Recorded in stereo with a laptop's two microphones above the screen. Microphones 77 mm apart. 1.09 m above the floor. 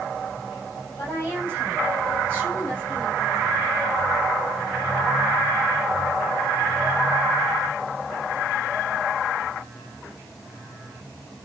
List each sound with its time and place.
1.0 s a woman speaking: 25° left (ahead or behind), 5.5 m; by 3.7 s 10° left (ahead or behind), 4.5 m